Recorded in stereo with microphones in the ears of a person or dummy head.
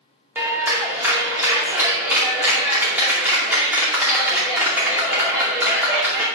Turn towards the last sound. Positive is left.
turn(degrees=-5)  # may be behind; listen again after turning